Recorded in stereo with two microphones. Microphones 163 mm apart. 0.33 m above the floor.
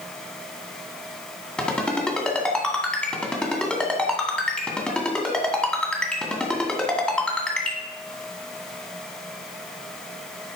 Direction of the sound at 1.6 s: 5° left (ahead or behind).